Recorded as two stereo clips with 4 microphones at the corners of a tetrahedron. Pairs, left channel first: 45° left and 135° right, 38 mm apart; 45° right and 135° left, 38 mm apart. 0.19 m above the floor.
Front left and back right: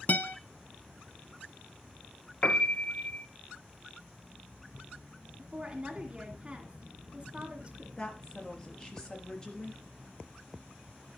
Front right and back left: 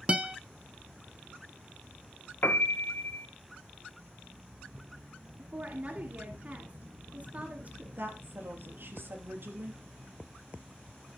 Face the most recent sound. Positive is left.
turn(degrees=110)